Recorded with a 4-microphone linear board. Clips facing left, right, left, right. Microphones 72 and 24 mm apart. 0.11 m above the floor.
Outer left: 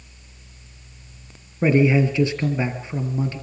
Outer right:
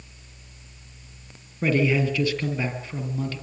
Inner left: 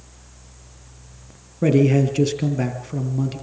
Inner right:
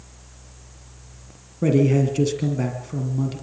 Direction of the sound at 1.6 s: 20° left (ahead or behind).